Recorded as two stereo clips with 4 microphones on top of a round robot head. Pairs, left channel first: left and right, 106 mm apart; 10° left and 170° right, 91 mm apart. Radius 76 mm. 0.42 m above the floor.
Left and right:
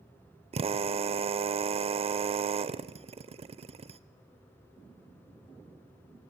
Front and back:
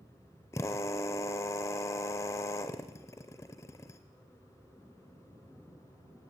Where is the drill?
55° right, 0.5 m.